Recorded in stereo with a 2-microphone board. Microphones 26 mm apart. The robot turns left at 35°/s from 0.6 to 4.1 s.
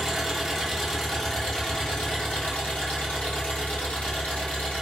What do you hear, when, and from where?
0.0 s an engine running: 165° right, 1.2 m; by 4.8 s 70° left, 1.2 m